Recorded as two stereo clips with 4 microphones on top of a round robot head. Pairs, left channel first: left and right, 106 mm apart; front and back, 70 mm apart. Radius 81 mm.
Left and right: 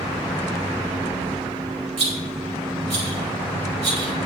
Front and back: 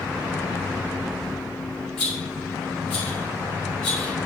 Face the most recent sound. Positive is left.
turn(degrees=-80)